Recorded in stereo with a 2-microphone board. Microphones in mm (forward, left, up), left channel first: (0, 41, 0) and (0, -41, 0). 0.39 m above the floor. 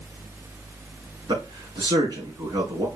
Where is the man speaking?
65° right (ahead or behind), 4.5 m.